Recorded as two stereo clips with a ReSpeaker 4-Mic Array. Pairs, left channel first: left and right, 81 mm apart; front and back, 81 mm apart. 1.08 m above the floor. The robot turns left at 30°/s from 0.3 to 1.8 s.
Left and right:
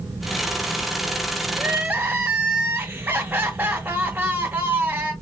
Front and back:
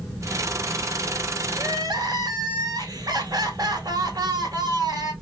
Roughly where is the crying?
Behind right.